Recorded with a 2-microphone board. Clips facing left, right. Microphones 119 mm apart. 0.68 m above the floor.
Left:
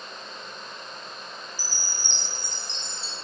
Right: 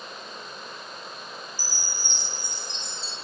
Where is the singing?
No singing in this recording.